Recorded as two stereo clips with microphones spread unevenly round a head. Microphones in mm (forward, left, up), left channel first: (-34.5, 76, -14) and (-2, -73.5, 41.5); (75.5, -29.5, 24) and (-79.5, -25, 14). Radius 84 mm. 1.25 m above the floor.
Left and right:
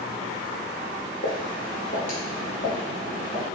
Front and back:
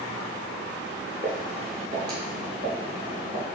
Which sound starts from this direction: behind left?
Footsteps, at 1.2 s.